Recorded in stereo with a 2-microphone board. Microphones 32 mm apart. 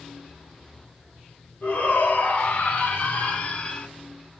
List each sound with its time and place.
1.6 s a shout: 65° left (ahead or behind), 3 m; by 3.9 s 40° left (ahead or behind), 1.6 m